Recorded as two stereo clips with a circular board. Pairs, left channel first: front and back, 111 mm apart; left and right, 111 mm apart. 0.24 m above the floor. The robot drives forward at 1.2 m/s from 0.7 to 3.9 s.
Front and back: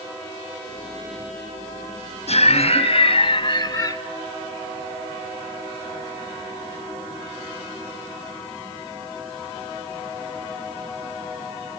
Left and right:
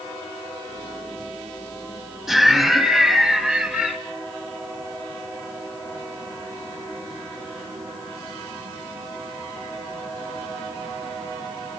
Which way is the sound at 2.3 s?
5° right.